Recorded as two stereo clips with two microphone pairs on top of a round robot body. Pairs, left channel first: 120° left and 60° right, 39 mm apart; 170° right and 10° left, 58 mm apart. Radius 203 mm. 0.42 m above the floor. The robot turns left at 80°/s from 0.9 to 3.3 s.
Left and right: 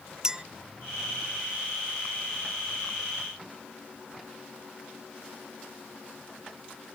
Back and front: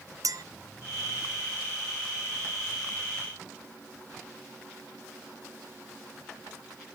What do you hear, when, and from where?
0.2 s a clink: 10° left